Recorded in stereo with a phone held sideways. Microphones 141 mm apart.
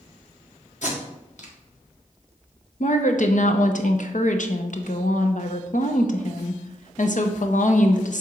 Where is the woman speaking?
60° left (ahead or behind), 0.9 m.